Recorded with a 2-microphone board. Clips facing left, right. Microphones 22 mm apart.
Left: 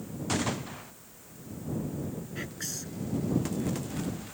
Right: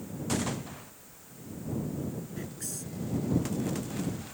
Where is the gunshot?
15° left (ahead or behind).